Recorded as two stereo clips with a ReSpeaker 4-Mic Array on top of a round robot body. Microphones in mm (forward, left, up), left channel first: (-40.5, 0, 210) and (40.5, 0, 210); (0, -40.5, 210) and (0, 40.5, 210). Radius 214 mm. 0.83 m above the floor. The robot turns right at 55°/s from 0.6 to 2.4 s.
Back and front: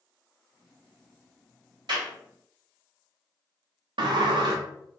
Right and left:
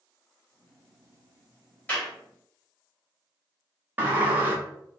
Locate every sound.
1.9 s a clap: 20° right, 1.9 m; by 2.1 s 5° right, 1.9 m
4.0 s a sliding door: 25° left, 0.6 m